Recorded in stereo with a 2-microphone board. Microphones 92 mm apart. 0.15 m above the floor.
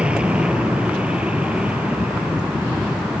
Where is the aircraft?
10° right (ahead or behind); by 3.2 s 15° right (ahead or behind).